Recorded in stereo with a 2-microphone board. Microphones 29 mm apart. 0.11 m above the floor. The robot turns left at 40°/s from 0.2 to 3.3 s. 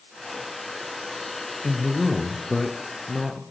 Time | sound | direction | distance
1.6 | a man speaking | 45° left | 1.5 m